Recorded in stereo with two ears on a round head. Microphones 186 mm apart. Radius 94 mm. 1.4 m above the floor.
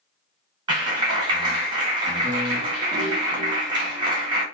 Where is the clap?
20° right (ahead or behind), 2 m.